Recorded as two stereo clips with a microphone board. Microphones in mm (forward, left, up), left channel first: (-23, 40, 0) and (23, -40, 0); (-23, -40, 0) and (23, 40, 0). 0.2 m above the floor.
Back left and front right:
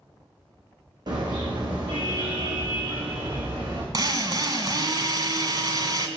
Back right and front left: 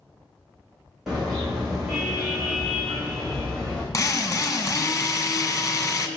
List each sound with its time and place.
1.1 s a car horn: 25° right, 5.5 m; by 3.8 s 35° right, 7 m
3.9 s a drill: 80° right, 2.5 m